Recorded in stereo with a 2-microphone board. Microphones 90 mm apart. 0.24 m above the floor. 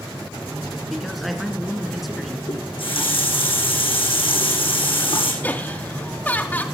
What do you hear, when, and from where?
0.9 s a man speaking: centre (ahead or behind), 2.5 m
2.5 s a running tap: 80° left, 8.5 m
5.4 s laughter: 20° left (ahead or behind), 1.7 m